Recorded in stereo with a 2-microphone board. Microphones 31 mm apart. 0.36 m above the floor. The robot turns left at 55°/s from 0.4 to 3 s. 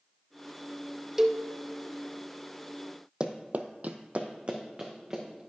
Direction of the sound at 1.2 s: 15° right (ahead or behind).